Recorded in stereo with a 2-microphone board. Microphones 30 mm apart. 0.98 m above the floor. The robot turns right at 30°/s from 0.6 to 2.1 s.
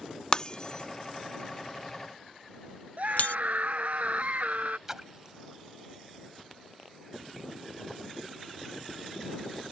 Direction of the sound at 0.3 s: 30° left (ahead or behind).